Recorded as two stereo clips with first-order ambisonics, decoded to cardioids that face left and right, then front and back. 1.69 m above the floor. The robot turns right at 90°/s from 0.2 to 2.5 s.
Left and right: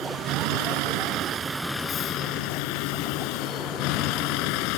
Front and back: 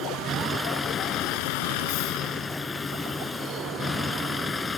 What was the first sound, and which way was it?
A vehicle, 135° right.